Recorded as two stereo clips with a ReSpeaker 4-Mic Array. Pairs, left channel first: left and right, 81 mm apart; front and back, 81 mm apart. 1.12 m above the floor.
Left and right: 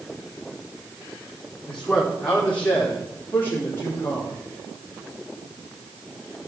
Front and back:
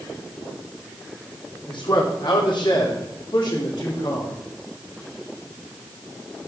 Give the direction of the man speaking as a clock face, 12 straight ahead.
12 o'clock.